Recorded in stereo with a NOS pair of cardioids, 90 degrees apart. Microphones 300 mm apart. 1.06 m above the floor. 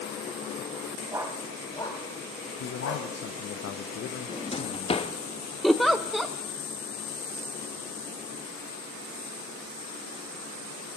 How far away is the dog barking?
About 2.5 m.